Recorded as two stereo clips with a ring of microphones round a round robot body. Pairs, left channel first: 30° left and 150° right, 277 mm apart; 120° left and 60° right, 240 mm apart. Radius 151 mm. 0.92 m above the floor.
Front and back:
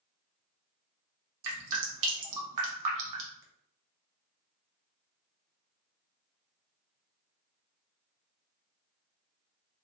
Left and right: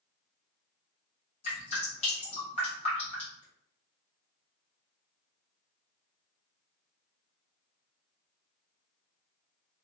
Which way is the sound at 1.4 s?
170° right.